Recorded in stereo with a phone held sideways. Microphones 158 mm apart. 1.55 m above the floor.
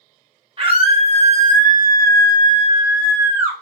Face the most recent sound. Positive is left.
turn(degrees=-10)  # may be behind; listen again after turning